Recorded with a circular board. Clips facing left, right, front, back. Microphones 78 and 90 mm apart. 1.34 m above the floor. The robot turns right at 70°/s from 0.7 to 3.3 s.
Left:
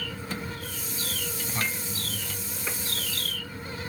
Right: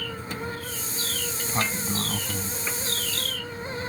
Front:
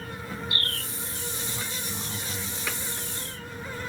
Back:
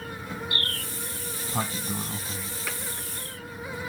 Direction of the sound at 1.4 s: 165° right.